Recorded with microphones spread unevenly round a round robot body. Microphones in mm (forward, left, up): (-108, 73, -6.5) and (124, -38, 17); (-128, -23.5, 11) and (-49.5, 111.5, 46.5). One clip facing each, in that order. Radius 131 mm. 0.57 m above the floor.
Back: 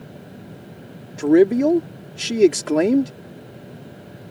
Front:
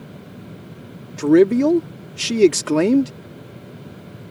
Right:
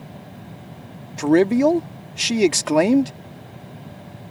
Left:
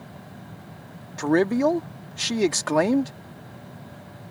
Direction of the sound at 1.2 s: 100° right.